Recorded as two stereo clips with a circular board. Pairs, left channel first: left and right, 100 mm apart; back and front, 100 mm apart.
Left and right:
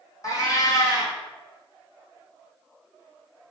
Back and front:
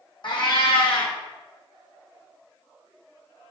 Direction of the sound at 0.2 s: 145° left.